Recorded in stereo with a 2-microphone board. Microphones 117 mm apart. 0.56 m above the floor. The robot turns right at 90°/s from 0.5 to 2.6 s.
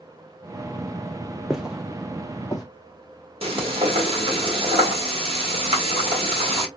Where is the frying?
50° right (ahead or behind), 1.4 m.